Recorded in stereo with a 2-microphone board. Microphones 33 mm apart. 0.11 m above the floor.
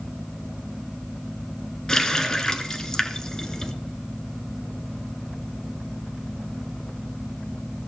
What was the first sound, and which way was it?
A running tap, 20° left (ahead or behind).